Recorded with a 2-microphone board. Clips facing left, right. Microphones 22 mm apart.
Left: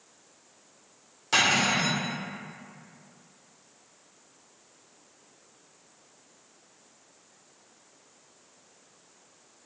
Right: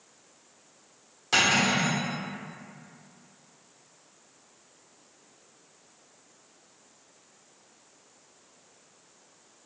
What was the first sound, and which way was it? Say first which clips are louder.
Cutlery clinking: even; centre (ahead or behind).